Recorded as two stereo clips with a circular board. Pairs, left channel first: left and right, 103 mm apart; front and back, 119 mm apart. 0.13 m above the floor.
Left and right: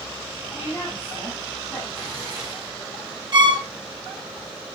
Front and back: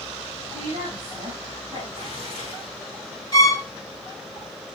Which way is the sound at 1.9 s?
140° left.